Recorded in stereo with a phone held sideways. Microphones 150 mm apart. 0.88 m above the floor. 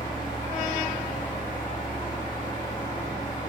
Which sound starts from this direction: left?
A fan, at 0.0 s.